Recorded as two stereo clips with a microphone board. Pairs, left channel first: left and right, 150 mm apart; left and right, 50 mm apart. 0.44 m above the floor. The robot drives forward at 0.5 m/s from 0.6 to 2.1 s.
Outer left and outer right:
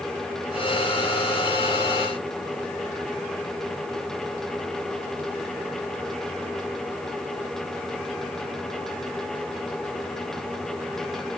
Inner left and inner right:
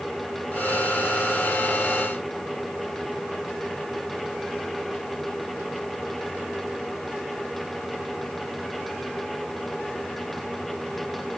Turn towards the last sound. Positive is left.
No sound to turn to.